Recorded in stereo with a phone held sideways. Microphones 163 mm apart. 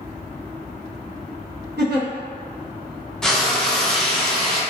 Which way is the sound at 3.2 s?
5° left (ahead or behind).